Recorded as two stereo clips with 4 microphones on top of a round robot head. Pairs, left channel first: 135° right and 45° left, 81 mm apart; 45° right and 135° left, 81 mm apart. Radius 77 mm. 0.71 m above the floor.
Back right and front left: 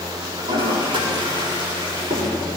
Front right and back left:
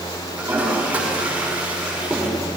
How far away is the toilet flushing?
About 6.5 m.